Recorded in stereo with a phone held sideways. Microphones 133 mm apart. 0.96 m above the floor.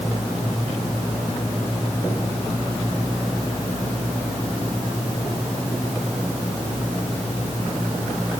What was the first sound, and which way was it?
Only background noise.